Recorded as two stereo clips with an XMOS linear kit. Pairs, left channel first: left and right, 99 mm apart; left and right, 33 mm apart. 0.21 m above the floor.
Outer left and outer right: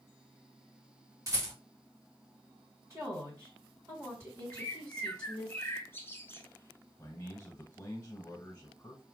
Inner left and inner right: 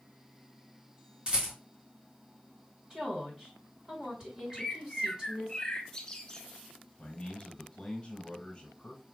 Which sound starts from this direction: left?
A bird, at 4.5 s.